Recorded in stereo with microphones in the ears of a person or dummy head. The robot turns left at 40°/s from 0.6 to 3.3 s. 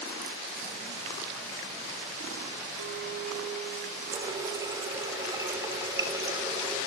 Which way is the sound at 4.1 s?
25° right (ahead or behind).